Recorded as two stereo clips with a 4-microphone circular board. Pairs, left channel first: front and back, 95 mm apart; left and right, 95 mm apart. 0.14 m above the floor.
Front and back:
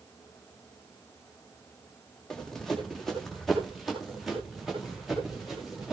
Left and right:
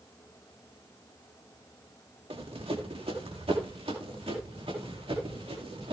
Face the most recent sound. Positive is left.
turn(degrees=-95)